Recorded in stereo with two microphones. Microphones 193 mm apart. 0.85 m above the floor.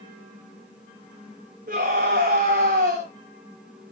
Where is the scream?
50° right (ahead or behind), 4.5 m.